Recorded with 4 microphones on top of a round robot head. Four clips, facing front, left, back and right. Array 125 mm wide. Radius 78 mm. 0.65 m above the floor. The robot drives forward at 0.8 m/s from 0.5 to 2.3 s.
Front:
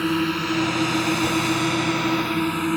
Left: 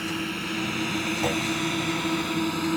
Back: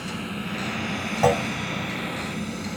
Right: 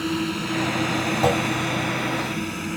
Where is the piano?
No piano in this recording.